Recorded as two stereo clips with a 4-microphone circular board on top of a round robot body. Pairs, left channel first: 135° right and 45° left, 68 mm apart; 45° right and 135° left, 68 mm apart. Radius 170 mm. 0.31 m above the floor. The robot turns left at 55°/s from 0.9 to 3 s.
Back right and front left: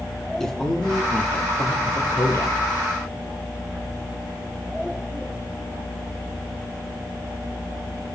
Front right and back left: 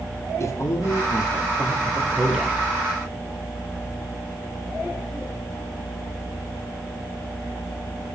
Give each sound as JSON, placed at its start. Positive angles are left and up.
{"t": 0.4, "sound": "a man speaking", "azimuth_deg": -55, "distance_m": 1.1}